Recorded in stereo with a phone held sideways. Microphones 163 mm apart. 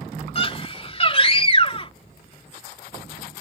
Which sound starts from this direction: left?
A scream, at 0.3 s.